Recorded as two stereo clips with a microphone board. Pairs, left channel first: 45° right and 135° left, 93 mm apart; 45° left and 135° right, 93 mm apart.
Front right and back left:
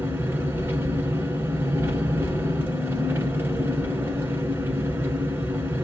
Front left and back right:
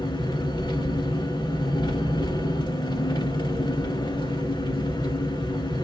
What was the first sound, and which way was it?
An engine running, 70° left.